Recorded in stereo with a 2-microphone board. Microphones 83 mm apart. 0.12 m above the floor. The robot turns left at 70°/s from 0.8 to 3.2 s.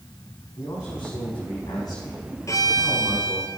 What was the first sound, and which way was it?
A man speaking, 130° left.